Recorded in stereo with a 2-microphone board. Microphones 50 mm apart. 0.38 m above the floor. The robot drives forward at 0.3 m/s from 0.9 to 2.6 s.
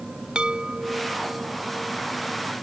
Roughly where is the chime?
Centre.